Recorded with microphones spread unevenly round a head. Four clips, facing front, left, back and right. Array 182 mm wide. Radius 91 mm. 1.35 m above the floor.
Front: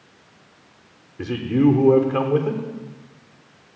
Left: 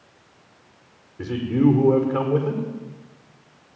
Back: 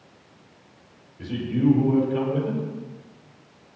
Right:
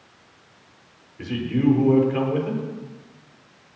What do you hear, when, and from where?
1.2 s a man speaking: 10° left, 5 m